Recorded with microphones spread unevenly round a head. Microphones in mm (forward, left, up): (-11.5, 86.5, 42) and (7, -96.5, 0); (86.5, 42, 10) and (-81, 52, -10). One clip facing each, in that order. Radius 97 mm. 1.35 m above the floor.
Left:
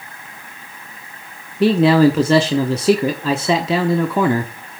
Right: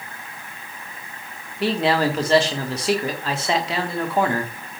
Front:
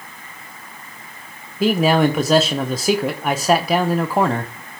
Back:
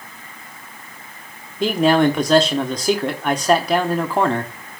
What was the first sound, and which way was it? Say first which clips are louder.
A man speaking: left 8 dB, even; 80° left.